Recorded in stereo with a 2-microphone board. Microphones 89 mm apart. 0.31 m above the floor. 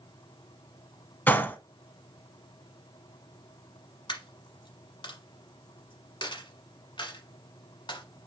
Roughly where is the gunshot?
Left.